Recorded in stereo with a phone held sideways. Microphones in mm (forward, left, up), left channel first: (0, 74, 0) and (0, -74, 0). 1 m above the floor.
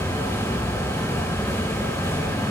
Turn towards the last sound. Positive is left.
turn(degrees=15)  # may be behind; listen again after turning